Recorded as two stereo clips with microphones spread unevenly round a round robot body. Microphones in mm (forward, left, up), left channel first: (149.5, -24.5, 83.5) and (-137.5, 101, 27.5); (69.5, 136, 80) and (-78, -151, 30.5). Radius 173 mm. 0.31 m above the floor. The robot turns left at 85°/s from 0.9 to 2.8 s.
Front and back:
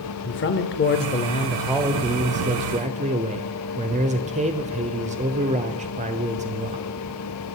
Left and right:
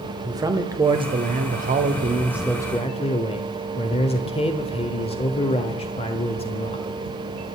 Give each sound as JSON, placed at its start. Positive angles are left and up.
{"t": 0.2, "sound": "a man speaking", "azimuth_deg": -65, "distance_m": 1.0}